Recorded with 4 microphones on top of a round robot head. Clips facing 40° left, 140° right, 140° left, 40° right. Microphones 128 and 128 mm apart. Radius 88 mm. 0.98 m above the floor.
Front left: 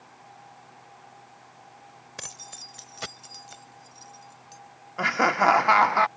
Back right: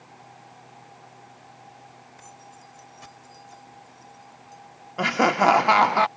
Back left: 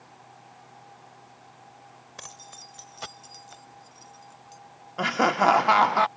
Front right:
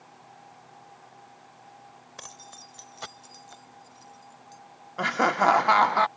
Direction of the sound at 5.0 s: 145° right.